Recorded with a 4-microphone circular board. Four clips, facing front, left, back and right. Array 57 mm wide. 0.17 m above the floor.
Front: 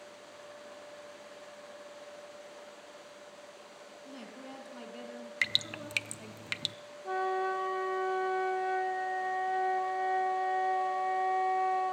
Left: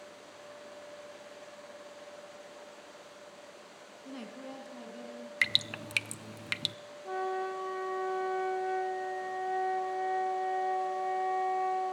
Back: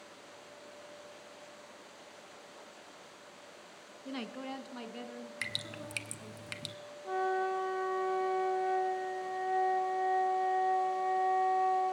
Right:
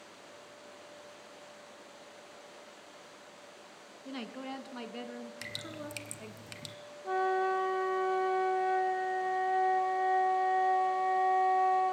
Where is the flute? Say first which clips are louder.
Right 4 dB, front 1 dB; 45° right, 1.6 m.